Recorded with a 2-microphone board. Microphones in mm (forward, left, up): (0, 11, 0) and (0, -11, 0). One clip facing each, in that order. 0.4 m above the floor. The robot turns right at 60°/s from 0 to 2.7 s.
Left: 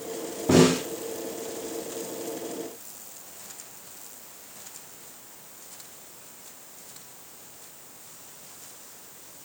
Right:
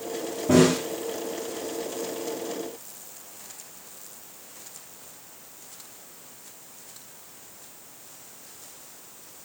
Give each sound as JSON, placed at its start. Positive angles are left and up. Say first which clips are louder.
{"t": 0.5, "sound": "a snare drum", "louder": "even", "side_deg": 40, "distance_m": 4.5}